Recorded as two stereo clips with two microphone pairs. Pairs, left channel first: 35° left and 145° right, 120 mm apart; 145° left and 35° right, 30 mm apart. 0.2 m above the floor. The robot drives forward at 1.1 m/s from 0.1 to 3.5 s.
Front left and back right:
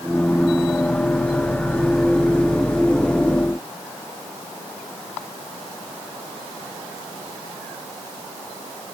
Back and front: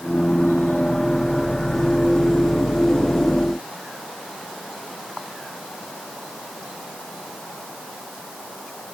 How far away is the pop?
No pop in this recording.